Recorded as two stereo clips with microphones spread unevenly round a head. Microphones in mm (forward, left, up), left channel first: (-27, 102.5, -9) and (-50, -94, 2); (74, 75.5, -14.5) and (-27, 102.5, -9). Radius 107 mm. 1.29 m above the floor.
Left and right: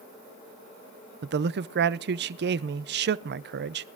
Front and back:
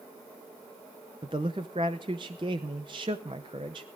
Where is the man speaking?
130° right, 0.6 m.